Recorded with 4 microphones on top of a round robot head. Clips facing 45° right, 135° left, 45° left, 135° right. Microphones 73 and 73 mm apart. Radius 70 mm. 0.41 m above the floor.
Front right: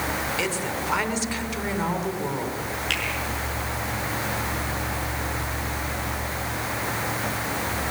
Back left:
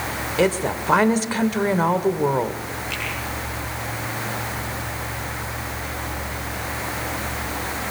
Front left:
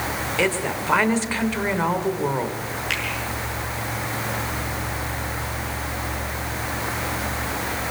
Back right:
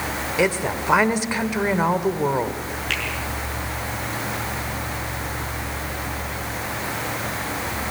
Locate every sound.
0.4 s a woman speaking: 155° left, 1.7 m
2.9 s a finger snap: 35° right, 7 m